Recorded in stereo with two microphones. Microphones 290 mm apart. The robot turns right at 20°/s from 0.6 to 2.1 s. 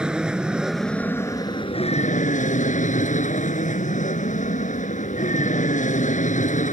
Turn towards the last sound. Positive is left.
turn(degrees=25)